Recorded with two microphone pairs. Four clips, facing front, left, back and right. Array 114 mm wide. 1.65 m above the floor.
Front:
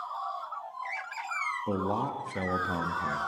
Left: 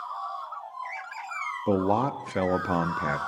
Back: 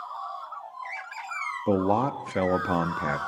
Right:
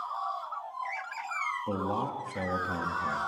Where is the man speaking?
140° left, 0.6 m.